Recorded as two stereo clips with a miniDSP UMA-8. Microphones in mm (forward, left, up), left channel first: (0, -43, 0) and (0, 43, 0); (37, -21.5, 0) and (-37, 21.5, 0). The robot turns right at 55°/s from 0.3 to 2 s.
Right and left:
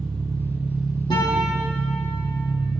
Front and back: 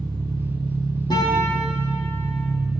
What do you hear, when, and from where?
0.0 s an engine running: 140° left, 2 m; by 2.8 s 130° right, 2 m
1.1 s a guitar: 65° right, 6 m; by 1.6 s 35° right, 6 m